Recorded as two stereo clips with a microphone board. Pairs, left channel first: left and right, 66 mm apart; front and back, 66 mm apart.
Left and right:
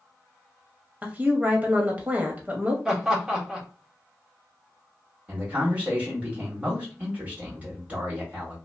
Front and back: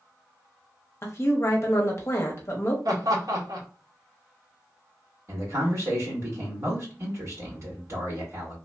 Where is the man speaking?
155° right, 1.8 m.